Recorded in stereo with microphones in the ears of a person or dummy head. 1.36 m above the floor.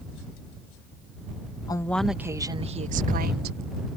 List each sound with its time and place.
1.7 s a woman speaking: 20° left (ahead or behind); by 3.6 s 55° right (ahead or behind)